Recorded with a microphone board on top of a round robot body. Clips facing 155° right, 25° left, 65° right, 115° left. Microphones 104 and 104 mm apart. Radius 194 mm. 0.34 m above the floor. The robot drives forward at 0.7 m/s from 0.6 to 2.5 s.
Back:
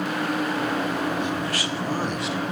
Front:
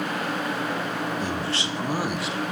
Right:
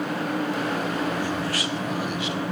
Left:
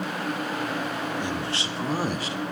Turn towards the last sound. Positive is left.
turn(degrees=125)